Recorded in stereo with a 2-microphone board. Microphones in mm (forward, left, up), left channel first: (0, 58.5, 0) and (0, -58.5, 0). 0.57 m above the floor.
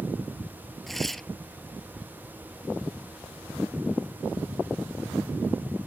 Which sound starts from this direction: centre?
Tearing paper, at 0.9 s.